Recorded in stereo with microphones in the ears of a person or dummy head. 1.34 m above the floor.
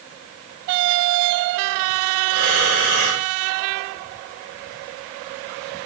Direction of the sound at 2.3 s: 80° right.